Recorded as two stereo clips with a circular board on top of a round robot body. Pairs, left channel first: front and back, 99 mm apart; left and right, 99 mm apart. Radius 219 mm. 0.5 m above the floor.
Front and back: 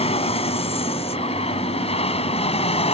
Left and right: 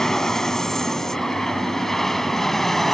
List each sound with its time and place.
0.0 s an aircraft: 5° left; by 2.9 s straight ahead